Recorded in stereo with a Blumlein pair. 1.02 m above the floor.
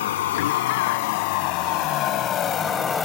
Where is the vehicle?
55° left; by 3.1 s 15° left.